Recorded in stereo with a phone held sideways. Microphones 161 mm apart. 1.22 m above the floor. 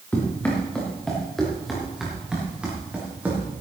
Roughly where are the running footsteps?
Centre.